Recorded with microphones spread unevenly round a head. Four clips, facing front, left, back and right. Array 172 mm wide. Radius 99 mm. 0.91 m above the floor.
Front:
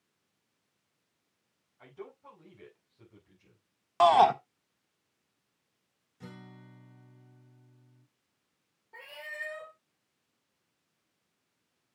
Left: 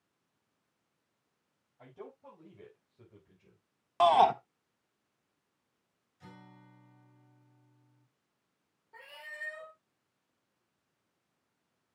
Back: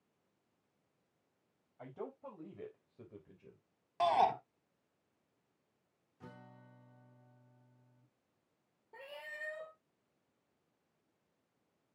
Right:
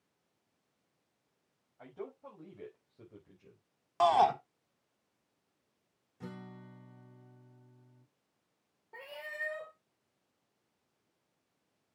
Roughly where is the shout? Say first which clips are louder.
Left 3 dB, front 9 dB; ahead left.